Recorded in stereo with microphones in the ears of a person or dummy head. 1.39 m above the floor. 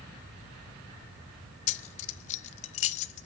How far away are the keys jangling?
About 0.6 m.